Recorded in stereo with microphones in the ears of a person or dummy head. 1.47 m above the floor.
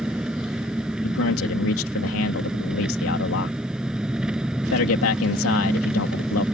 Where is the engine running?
5° right (ahead or behind).